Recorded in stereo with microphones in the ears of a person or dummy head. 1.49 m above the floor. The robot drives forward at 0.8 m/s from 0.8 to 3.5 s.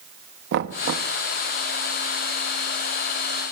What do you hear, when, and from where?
0.5 s knocking: 60° right (ahead or behind), 1.2 m; by 1.1 s 55° right (ahead or behind), 1.2 m